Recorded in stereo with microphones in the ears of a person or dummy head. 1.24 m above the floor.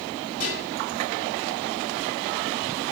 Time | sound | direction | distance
0.4 | dishes clattering | 40° left (ahead or behind) | 3 m